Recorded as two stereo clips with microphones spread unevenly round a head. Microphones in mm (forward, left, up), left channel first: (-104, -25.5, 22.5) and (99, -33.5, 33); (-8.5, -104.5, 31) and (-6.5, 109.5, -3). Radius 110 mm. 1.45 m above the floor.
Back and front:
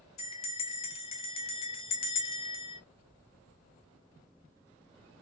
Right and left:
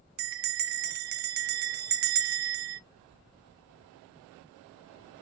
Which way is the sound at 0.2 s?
120° left.